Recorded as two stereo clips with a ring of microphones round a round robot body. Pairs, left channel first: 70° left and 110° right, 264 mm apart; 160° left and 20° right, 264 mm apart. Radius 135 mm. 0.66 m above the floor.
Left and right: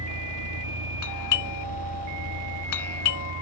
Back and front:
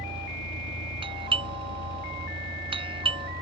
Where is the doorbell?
50° left.